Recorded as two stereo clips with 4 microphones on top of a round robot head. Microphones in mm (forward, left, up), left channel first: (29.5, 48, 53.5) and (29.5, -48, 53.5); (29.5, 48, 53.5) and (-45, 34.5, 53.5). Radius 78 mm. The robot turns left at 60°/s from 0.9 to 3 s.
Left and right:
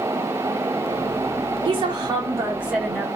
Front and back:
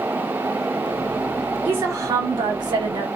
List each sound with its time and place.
1.6 s a woman speaking: 105° right, 1.0 m; by 3.1 s 170° left, 1.0 m